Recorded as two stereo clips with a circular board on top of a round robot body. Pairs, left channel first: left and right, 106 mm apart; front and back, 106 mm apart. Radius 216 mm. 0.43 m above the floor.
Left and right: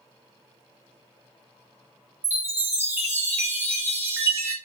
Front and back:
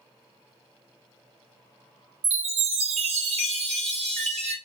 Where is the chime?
160° right, 0.5 m.